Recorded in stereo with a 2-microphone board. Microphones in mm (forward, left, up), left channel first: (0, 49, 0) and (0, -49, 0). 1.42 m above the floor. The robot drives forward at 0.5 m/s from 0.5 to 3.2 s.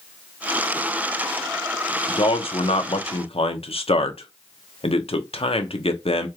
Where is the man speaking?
65° left (ahead or behind), 1.0 m; by 6.3 s 75° left (ahead or behind), 0.9 m.